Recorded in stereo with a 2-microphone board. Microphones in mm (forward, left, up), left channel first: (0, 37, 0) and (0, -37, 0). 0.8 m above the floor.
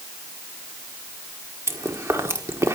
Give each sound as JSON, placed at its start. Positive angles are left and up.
{"t": 1.7, "sound": "chewing", "side_deg": -40, "distance_m": 1.5}